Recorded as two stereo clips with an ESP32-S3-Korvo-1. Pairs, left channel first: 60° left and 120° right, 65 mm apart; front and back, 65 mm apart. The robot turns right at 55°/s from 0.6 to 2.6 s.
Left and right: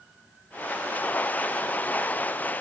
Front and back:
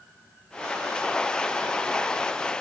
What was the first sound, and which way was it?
Only background noise.